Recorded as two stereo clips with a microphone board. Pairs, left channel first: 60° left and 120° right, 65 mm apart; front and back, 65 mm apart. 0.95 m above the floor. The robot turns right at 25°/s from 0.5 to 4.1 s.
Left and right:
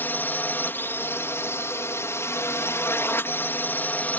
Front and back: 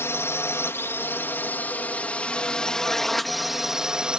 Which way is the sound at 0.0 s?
20° left.